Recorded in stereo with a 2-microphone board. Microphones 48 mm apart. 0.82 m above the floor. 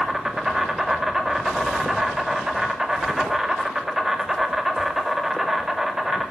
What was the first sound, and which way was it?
An insect, 10° right (ahead or behind).